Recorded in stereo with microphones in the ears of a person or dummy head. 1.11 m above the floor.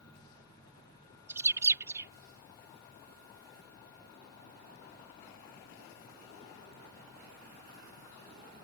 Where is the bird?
20° right (ahead or behind).